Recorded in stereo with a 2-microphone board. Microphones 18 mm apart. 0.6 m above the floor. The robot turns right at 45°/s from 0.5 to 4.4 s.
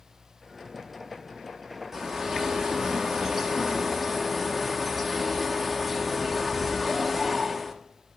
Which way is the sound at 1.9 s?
125° right.